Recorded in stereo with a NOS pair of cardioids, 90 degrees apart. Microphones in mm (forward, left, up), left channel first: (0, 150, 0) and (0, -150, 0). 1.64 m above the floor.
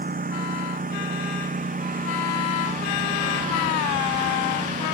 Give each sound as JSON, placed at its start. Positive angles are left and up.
{"t": 0.0, "sound": "a lawn mower", "azimuth_deg": -30}